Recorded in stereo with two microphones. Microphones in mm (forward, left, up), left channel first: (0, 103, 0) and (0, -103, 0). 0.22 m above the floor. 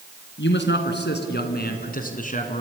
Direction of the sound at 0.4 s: 60° left (ahead or behind).